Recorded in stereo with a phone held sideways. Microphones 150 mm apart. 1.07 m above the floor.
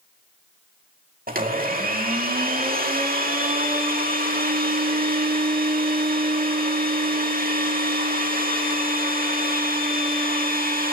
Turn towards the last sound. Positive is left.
turn(degrees=-75)  # may be behind; listen again after turning